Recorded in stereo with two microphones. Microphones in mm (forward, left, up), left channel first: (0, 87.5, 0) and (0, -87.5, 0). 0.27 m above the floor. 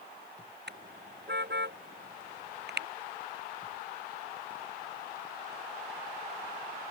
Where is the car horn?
85° right; by 2.9 s 80° right.